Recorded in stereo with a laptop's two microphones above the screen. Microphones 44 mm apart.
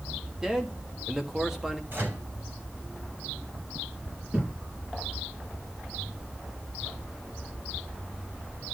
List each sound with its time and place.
0.4 s a man speaking: 15° right (ahead or behind), 1.5 m
1.9 s a microwave: 50° right (ahead or behind), 3.5 m
4.3 s a thud: 25° right (ahead or behind), 6.5 m